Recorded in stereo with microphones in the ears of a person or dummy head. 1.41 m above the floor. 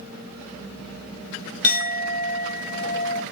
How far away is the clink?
About 0.8 m.